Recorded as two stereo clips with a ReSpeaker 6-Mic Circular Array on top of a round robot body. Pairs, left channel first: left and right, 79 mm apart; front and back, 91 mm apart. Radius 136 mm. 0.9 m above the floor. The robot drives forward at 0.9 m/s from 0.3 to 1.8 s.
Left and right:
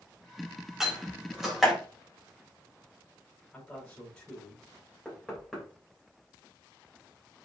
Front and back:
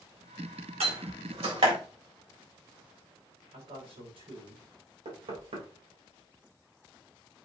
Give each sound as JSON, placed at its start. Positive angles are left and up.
{"t": 0.8, "sound": "a door slam", "azimuth_deg": -175, "distance_m": 3.0}
{"t": 3.5, "sound": "a man speaking", "azimuth_deg": 170, "distance_m": 5.5}
{"t": 5.0, "sound": "knocking", "azimuth_deg": 180, "distance_m": 3.0}